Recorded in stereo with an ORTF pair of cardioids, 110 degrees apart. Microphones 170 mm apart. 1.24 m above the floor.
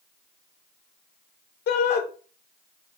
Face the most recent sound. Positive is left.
turn(degrees=70)